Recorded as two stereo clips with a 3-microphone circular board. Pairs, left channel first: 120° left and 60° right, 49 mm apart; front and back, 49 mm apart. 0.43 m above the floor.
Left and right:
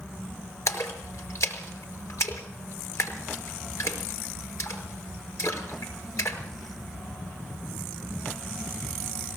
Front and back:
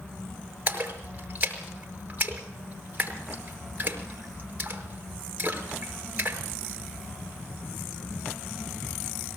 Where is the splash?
130° left, 5 m.